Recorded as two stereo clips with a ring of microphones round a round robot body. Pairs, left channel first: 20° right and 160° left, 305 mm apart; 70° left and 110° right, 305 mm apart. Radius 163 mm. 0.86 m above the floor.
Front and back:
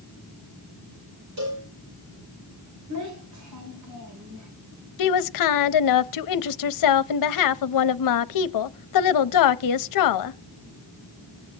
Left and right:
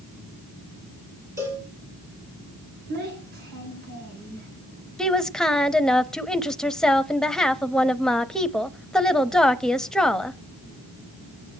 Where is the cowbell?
170° left, 8 m.